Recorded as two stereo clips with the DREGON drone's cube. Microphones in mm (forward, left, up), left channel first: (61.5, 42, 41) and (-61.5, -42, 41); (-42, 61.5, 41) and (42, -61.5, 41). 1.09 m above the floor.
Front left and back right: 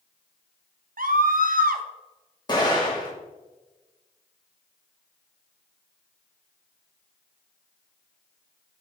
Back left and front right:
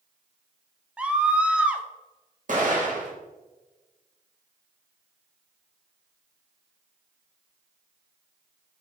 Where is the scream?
140° right, 1.0 m.